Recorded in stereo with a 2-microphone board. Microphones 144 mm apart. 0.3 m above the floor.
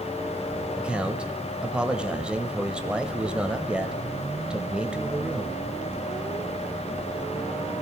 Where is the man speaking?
5° right (ahead or behind), 1.0 m.